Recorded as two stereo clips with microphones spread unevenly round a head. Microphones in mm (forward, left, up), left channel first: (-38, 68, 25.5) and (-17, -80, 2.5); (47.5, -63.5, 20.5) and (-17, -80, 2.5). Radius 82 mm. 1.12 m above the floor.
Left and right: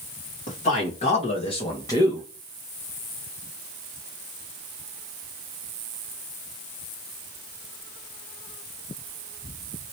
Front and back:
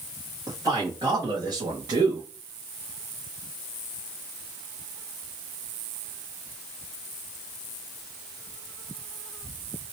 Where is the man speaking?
135° left, 1.4 m; by 2.3 s straight behind, 0.8 m.